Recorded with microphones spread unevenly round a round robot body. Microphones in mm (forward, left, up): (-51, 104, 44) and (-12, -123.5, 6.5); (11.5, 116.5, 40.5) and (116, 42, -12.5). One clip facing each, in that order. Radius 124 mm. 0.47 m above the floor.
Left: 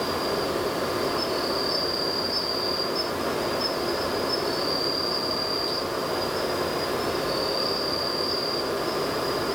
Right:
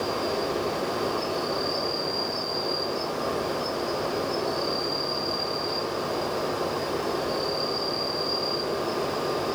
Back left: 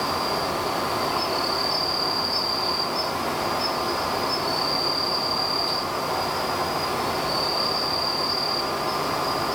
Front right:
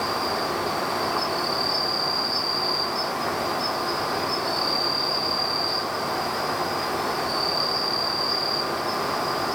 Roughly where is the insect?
Ahead left.